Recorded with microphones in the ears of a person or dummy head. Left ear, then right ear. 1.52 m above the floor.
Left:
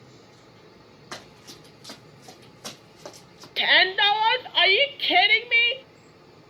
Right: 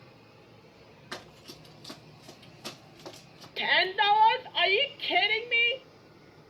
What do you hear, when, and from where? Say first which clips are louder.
1.1 s running footsteps: left 2 dB; 30° left (ahead or behind), 4.5 m; by 3.5 s 45° left (ahead or behind), 5 m
3.6 s a shout: left 6 dB; 20° left (ahead or behind), 0.6 m